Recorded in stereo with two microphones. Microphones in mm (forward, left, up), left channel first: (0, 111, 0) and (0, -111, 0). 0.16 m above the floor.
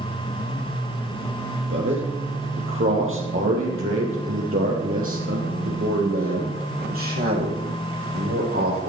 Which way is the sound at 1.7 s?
60° right (ahead or behind).